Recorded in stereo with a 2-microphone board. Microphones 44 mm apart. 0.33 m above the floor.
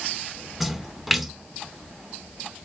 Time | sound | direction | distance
0.6 | a splash | centre (ahead or behind) | 1.0 m